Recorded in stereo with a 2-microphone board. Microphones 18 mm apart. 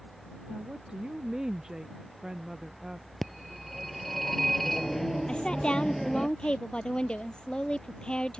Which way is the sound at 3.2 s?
10° left (ahead or behind).